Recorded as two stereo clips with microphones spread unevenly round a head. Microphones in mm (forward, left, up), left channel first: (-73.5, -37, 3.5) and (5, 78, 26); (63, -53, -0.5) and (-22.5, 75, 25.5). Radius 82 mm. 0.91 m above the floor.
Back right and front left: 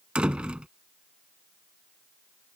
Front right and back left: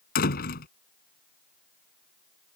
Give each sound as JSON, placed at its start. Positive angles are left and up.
{"t": 0.1, "sound": "a door slam", "azimuth_deg": -25}